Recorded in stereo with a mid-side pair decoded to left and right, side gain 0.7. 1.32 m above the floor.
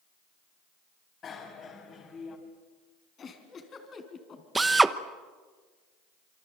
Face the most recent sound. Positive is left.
turn(degrees=-15)